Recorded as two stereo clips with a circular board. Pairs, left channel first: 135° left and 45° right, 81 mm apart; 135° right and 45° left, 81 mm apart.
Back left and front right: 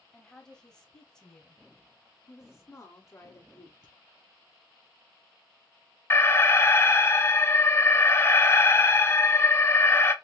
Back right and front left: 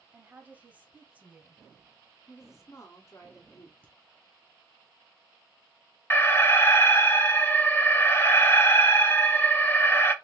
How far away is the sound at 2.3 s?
About 1.7 m.